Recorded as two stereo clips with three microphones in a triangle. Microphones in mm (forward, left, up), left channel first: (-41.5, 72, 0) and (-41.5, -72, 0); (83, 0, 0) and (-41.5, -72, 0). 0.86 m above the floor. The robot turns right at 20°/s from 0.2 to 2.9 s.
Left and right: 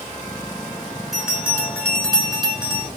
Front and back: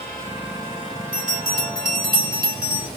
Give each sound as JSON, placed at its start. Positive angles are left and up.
{"t": 1.1, "sound": "a bell", "azimuth_deg": 180, "distance_m": 3.0}